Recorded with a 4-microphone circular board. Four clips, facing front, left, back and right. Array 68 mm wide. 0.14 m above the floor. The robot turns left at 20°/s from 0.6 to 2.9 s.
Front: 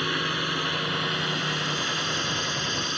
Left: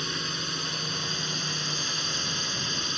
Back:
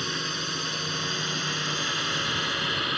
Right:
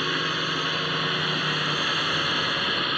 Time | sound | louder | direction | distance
0.0 | a drone | right 8 dB, front 4 dB | 65° right | ?